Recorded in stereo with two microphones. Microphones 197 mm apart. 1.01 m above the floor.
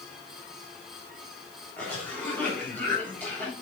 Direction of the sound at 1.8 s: 10° left (ahead or behind).